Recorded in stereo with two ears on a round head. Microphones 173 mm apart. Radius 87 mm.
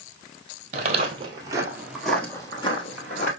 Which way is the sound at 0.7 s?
40° right (ahead or behind).